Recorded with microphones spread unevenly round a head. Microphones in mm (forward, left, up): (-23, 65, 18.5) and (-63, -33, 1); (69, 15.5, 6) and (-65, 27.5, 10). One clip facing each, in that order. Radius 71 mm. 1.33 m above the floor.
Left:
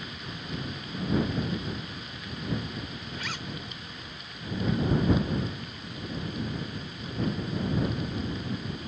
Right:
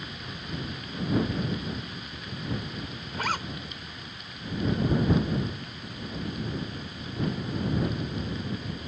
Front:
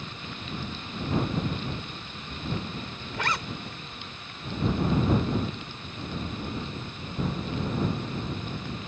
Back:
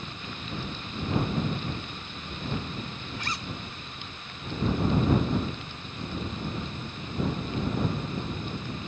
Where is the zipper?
50° right.